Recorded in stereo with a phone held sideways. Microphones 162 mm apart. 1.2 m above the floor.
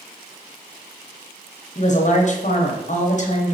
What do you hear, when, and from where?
1.8 s a woman speaking: 50° left (ahead or behind), 0.9 m